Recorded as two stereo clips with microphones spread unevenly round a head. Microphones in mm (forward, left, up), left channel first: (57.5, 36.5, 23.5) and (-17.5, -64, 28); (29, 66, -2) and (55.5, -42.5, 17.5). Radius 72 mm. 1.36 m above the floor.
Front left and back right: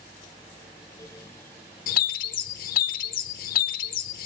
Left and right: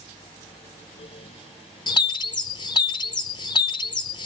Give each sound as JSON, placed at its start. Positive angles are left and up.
{"t": 1.9, "sound": "a bird", "azimuth_deg": 50, "distance_m": 0.6}